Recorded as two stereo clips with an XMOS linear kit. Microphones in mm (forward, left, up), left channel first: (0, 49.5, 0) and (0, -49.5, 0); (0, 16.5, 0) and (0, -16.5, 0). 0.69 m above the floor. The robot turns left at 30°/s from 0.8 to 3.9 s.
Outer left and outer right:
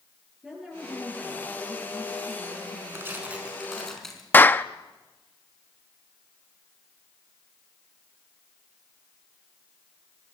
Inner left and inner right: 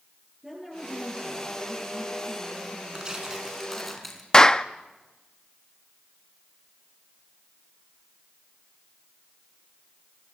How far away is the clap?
About 0.6 m.